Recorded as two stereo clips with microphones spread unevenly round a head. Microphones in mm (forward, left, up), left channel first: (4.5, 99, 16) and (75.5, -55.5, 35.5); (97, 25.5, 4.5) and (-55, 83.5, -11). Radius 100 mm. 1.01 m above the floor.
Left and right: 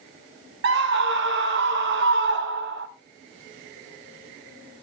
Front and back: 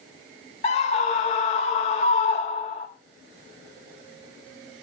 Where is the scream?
80° right, 1.1 m.